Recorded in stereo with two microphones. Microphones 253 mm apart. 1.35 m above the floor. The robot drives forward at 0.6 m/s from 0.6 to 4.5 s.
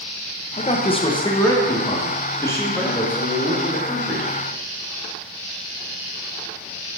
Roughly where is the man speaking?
Left.